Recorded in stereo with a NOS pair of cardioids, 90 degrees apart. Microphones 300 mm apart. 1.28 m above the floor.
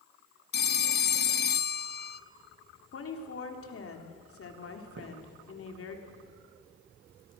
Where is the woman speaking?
50° left, 4 m.